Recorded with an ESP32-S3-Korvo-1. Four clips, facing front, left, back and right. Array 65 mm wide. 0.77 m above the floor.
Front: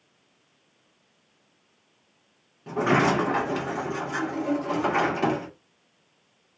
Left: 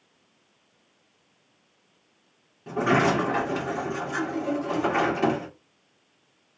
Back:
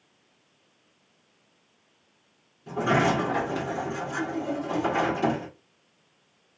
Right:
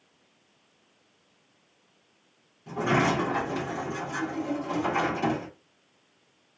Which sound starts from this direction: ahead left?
A sliding door, at 2.7 s.